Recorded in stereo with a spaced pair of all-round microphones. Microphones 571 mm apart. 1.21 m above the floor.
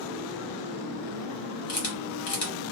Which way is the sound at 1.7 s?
75° left (ahead or behind).